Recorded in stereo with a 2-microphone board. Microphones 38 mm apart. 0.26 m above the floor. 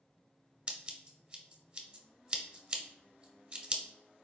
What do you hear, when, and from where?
0.7 s scissors: 25° right (ahead or behind), 0.6 m